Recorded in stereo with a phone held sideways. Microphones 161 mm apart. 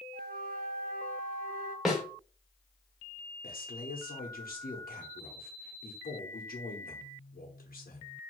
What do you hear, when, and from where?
0.1 s a flute: 70° right (ahead or behind), 0.8 m
1.9 s a snare drum: centre (ahead or behind), 1.3 m
3.4 s a man speaking: 70° left (ahead or behind), 0.7 m